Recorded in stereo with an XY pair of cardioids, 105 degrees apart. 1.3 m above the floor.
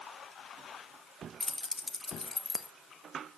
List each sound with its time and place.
1.4 s keys jangling: 15° left, 1.1 m